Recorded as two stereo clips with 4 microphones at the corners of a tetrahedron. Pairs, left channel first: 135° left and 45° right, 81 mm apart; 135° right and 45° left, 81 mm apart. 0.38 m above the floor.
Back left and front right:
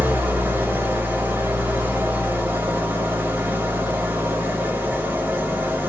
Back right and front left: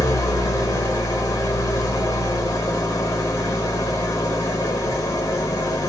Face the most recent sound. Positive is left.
turn(degrees=-100)